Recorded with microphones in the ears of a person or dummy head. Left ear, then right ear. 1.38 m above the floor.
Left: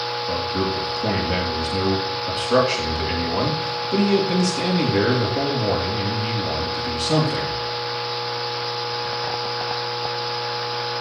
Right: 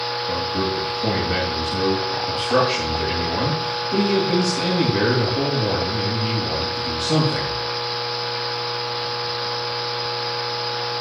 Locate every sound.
0.3 s a man speaking: 20° left (ahead or behind), 2.5 m